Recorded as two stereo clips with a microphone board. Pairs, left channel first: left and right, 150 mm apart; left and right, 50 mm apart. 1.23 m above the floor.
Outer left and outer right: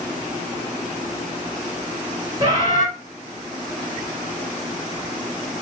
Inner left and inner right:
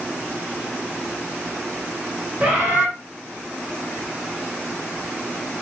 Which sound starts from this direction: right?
A bird, at 2.4 s.